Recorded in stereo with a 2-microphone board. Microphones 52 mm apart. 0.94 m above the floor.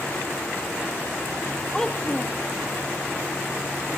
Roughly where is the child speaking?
Centre.